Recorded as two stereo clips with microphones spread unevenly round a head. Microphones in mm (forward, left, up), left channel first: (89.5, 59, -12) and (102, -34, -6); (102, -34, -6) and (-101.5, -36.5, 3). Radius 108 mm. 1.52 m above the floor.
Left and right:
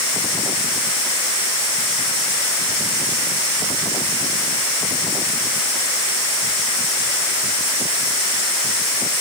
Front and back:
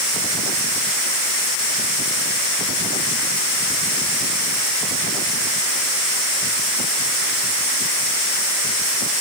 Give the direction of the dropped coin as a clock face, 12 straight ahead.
I don't hear a dropped coin.